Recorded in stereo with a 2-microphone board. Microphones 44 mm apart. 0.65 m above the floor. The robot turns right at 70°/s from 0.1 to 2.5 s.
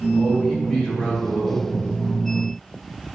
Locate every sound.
0.1 s a man speaking: 30° right, 3.5 m; by 1.7 s 80° left, 3.5 m